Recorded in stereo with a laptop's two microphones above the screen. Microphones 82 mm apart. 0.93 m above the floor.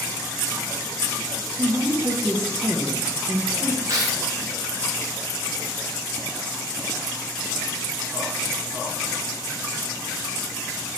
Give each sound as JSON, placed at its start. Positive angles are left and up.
{"t": 1.6, "sound": "a woman speaking", "side_deg": -30, "distance_m": 0.6}
{"t": 3.9, "sound": "tearing paper", "side_deg": -45, "distance_m": 0.7}